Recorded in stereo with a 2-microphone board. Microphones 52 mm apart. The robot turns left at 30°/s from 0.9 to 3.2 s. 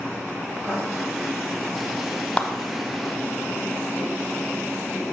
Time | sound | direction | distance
0.6 | writing | 40° right (ahead or behind) | 4 m
2.4 | a clap | 25° left (ahead or behind) | 0.8 m